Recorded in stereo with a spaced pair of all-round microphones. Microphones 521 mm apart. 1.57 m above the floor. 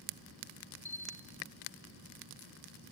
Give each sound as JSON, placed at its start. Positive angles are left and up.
{"t": 0.8, "sound": "a bell", "side_deg": -30, "distance_m": 2.5}